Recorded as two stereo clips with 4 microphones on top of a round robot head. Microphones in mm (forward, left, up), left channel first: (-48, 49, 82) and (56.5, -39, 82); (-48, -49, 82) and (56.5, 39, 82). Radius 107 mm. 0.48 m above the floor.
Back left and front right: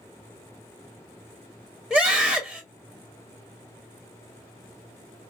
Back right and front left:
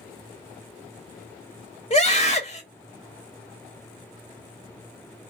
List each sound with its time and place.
1.9 s a scream: 135° right, 1.4 m